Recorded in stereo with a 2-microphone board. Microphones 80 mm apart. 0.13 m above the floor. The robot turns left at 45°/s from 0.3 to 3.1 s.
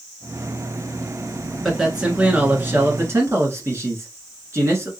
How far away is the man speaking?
About 1.5 m.